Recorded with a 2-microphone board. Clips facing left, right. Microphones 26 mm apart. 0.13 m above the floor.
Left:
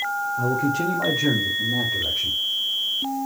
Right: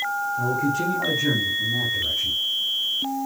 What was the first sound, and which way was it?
A man speaking, 5° left (ahead or behind).